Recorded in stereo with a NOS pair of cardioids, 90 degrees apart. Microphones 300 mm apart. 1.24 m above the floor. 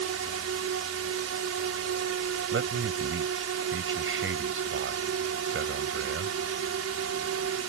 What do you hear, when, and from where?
0.0 s a drone: 60° right
2.5 s a man speaking: 50° right